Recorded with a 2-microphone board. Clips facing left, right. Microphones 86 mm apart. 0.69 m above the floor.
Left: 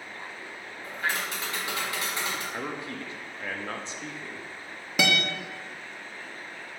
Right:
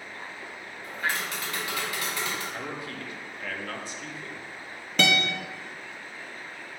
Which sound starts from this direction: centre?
A guitar, at 5.0 s.